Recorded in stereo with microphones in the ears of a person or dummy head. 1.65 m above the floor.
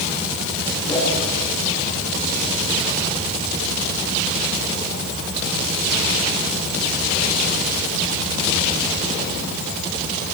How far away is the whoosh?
About 9 m.